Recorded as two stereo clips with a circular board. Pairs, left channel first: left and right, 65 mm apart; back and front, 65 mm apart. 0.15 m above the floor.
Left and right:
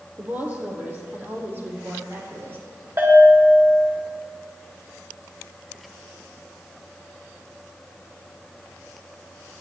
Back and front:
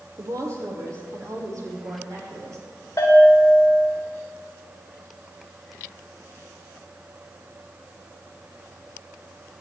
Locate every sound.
0.2 s a woman speaking: 30° right, 4 m; by 2.6 s 35° right, 7 m
3.0 s a bell: 135° right, 7.5 m